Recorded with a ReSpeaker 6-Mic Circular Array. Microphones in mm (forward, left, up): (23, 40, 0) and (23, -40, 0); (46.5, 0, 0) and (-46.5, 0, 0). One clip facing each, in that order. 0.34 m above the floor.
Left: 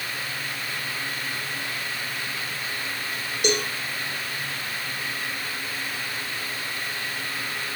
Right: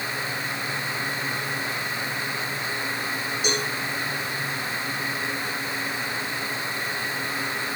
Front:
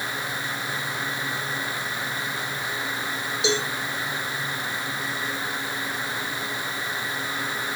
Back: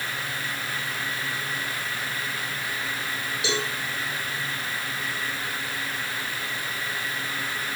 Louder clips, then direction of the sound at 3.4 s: Left 4 dB, front 4 dB; 65° left.